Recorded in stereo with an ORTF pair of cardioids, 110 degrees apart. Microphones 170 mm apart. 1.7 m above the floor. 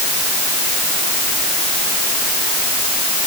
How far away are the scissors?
I don't hear scissors.